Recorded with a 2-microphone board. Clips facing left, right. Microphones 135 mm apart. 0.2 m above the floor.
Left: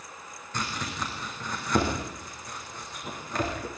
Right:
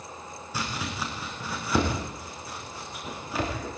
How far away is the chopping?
About 8.5 m.